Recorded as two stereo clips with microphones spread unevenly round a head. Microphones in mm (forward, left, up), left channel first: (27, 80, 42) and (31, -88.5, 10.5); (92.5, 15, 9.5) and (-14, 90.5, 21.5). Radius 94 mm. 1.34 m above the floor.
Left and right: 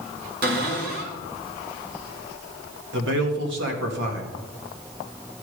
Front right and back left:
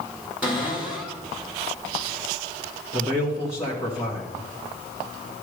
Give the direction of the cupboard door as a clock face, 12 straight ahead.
4 o'clock.